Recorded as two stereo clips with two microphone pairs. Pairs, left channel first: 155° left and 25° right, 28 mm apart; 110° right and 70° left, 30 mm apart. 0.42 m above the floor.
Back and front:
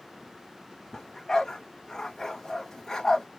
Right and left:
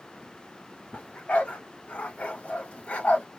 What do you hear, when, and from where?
0.9 s a dog barking: 135° right, 1.1 m